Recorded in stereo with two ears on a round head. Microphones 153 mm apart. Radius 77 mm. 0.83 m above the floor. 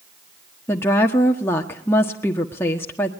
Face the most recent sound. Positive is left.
turn(degrees=15)  # may be behind; listen again after turning